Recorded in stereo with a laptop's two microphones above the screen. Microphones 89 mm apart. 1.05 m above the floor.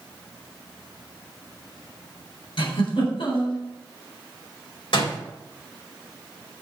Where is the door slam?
70° left (ahead or behind), 3.5 m.